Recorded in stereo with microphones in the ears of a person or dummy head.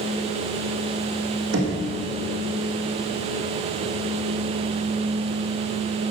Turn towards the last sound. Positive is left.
turn(degrees=-75)  # may be behind; listen again after turning